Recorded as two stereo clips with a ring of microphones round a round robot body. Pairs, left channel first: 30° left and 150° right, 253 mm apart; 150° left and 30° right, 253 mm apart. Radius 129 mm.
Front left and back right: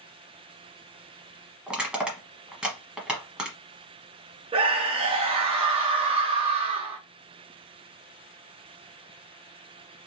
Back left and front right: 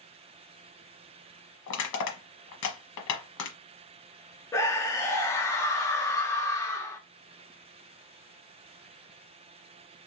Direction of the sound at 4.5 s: 155° right.